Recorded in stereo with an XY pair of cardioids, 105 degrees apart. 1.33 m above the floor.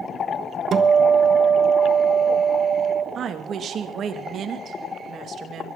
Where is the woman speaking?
55° right, 2 m.